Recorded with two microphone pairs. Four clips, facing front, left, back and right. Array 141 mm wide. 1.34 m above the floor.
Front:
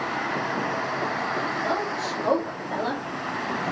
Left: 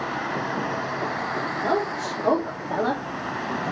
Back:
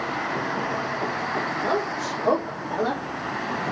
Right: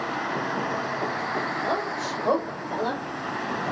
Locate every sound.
1.6 s a woman speaking: 110° left, 2.0 m; by 3.0 s 105° left, 1.1 m